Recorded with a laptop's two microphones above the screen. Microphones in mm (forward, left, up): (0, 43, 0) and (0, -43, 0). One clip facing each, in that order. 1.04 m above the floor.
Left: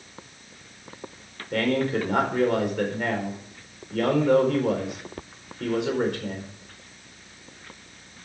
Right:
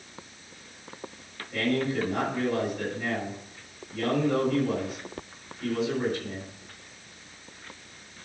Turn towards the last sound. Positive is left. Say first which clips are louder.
# left 3 dB
turn(degrees=80)